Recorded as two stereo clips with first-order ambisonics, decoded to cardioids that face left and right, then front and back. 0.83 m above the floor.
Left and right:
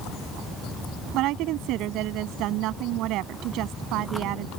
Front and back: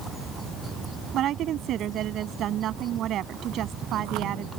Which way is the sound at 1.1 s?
125° right.